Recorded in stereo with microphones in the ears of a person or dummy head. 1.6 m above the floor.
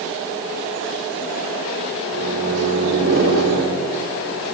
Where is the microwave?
85° right, 4.5 m.